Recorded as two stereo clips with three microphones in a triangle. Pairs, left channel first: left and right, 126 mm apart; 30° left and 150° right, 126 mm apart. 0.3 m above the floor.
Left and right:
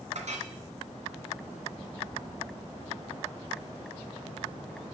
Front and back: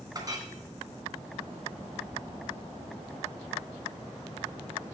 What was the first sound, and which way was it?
A clink, 90° right.